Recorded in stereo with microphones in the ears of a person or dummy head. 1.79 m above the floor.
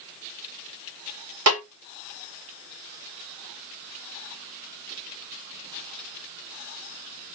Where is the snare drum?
85° right, 4.5 m.